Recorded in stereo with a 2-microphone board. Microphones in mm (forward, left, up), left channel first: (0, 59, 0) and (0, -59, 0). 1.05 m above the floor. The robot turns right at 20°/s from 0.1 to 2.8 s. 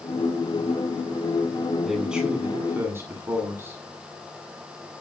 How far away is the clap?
I don't hear a clap.